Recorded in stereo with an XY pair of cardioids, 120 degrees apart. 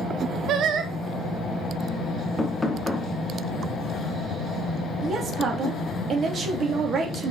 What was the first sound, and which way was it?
Singing, 60° right.